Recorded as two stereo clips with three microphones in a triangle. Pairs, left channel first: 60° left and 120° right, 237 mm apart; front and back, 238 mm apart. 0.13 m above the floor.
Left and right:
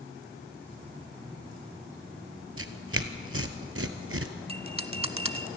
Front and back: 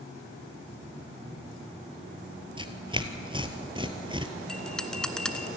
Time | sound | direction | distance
2.6 | tearing paper | 115° right | 1.2 m
4.5 | a bell | 85° right | 0.9 m